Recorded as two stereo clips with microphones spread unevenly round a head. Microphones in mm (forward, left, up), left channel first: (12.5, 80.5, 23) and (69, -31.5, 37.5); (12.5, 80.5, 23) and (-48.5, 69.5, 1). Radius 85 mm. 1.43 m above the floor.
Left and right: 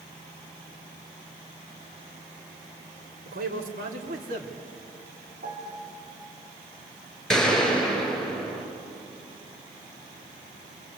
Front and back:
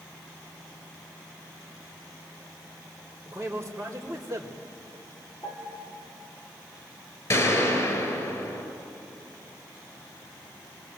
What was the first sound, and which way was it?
A man speaking, 75° right.